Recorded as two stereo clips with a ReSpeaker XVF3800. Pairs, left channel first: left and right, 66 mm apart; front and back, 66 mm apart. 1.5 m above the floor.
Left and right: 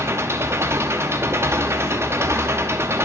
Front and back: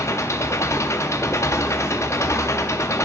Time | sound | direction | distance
0.0 | an engine running | 40° right | 0.7 m